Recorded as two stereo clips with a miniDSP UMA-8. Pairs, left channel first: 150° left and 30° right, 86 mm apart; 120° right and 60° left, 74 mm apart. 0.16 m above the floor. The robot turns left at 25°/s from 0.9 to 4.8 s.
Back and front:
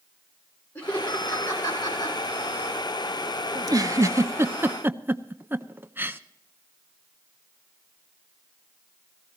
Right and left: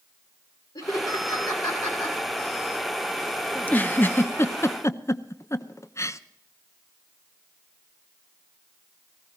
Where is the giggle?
55° right, 0.6 m; by 6.2 s 90° right, 0.6 m.